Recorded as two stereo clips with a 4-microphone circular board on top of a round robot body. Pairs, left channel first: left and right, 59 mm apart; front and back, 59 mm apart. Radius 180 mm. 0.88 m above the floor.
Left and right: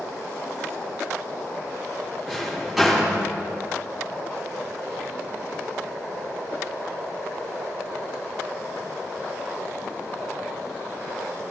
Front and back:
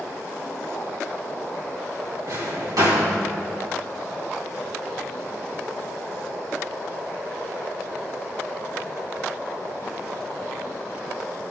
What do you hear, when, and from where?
2.3 s a drawer: 175° right, 3.5 m